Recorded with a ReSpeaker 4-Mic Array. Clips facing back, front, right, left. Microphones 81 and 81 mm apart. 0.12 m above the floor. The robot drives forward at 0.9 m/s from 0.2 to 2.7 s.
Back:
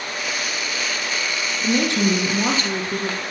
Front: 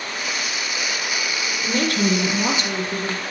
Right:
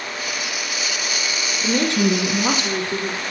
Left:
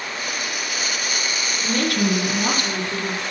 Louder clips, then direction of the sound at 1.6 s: Back 2 dB, right 3 dB; 120° right.